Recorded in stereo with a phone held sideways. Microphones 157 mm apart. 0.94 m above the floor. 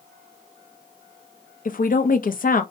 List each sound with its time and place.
1.6 s a woman speaking: 60° left (ahead or behind), 0.5 m